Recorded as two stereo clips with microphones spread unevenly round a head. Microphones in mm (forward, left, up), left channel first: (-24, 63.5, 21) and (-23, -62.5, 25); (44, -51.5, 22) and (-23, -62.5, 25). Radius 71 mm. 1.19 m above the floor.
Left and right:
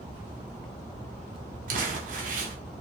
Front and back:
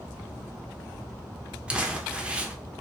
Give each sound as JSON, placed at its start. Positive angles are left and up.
{"t": 1.7, "sound": "crumpling", "azimuth_deg": -100, "distance_m": 0.5}